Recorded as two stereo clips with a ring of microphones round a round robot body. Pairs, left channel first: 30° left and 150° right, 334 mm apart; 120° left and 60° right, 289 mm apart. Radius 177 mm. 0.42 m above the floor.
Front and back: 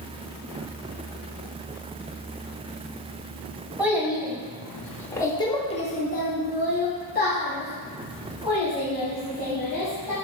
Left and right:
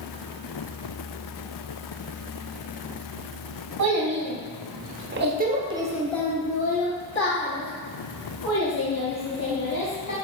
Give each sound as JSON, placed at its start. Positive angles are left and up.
{"t": 3.8, "sound": "a child speaking", "azimuth_deg": -65, "distance_m": 1.4}